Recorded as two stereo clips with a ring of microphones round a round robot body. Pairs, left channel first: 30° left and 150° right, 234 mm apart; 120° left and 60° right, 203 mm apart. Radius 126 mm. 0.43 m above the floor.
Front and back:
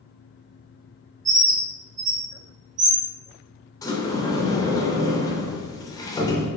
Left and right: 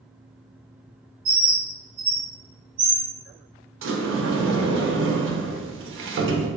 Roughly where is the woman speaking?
No woman speaking in this recording.